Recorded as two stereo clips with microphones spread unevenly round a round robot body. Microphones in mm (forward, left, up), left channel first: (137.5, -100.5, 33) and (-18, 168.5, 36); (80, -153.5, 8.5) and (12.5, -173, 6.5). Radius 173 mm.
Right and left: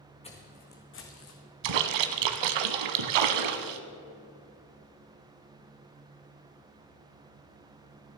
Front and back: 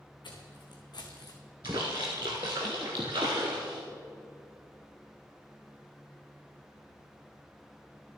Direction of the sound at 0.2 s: 15° left.